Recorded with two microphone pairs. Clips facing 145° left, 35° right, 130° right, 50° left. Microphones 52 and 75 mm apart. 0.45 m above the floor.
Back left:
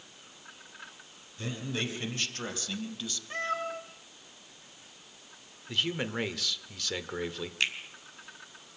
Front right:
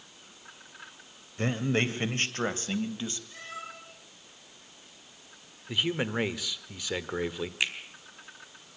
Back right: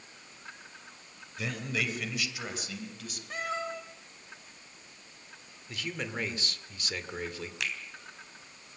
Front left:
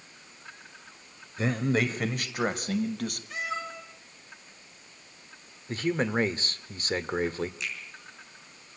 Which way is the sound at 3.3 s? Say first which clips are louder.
Back left 9 dB, even; straight behind.